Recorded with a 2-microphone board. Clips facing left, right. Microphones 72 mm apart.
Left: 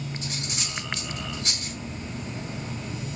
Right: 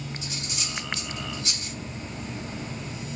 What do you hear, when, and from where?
0.2 s cutlery clinking: 45° left (ahead or behind), 2.5 m